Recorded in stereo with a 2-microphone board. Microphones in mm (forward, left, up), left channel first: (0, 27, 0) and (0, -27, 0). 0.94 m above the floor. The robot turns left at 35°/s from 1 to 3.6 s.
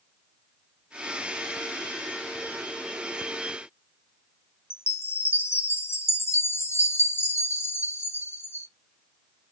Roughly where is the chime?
Left.